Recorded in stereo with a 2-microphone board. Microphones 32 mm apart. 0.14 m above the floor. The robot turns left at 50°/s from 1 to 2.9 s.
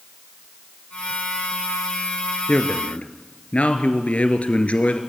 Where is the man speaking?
30° left (ahead or behind), 2 m; by 5.0 s 45° left (ahead or behind), 2 m.